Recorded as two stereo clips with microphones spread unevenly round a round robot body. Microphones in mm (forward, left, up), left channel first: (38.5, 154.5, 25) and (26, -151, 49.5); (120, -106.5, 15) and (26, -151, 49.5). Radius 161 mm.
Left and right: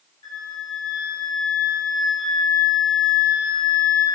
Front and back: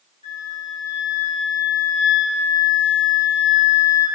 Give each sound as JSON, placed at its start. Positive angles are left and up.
{"t": 0.2, "sound": "a flute", "azimuth_deg": 55, "distance_m": 4.5}